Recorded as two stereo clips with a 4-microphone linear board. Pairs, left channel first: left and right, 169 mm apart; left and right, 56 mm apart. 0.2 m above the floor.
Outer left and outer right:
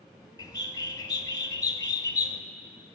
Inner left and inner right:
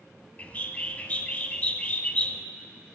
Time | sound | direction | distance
0.4 | a bird | 25° left (ahead or behind) | 0.5 m